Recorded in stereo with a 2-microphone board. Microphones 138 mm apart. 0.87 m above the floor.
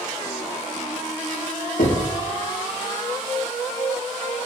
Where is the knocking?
85° left, 1.0 m.